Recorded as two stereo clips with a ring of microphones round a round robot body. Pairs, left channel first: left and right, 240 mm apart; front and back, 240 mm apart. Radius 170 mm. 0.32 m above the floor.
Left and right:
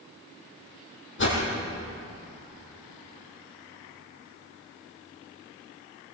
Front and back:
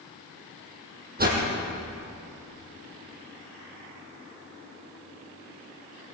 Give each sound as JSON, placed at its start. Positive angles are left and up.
{"t": 1.2, "sound": "a whoosh", "azimuth_deg": 130, "distance_m": 5.0}